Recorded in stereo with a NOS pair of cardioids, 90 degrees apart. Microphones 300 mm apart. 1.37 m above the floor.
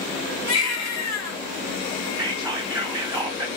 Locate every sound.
0.5 s a baby crying: 60° left, 1.4 m
2.2 s whispering: 5° right, 0.9 m